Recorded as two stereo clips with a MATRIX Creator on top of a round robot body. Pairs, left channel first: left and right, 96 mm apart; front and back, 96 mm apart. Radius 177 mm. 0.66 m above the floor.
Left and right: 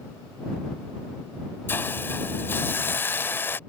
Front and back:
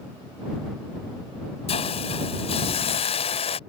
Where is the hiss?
20° left.